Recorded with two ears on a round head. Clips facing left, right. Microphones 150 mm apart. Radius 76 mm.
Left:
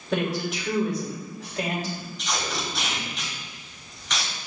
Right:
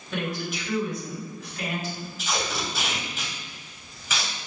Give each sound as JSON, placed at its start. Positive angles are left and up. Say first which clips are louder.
{"t": 0.1, "sound": "a woman speaking", "louder": "left 4 dB", "side_deg": 50, "distance_m": 2.0}
{"t": 2.2, "sound": "tape being pulled", "louder": "right 2 dB", "side_deg": -5, "distance_m": 1.3}